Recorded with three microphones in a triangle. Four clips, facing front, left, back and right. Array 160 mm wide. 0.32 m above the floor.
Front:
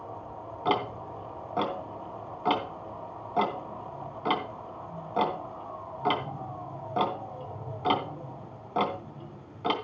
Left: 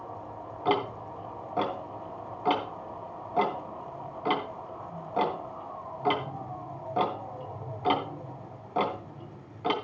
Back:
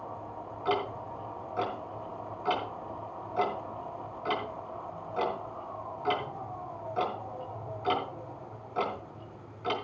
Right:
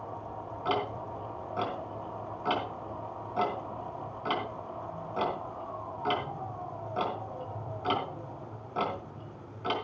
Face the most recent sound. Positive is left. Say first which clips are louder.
# left 4 dB, front 2 dB
turn(degrees=25)